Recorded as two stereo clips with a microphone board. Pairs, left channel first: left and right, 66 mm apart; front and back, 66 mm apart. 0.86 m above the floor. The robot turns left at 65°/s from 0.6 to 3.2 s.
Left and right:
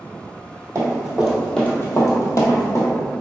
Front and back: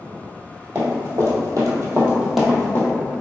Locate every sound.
0.8 s running footsteps: 130° right, 1.5 m; by 2.9 s 40° left, 1.4 m